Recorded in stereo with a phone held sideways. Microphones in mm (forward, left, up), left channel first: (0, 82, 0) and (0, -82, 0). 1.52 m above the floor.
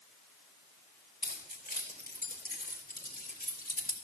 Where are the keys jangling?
80° left, 4 m; by 4.0 s 70° left (ahead or behind), 3 m.